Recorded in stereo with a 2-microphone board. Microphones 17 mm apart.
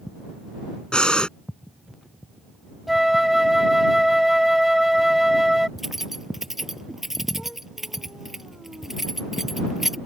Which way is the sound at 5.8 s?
15° right (ahead or behind).